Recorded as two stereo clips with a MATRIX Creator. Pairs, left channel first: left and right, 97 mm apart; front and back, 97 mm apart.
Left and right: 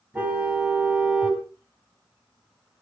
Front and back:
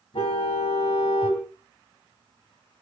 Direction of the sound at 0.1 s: 20° right.